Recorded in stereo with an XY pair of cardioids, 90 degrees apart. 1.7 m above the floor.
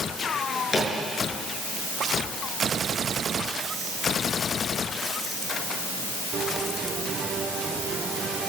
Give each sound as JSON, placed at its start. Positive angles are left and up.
{"t": 0.3, "sound": "a drawer", "azimuth_deg": 35, "distance_m": 8.0}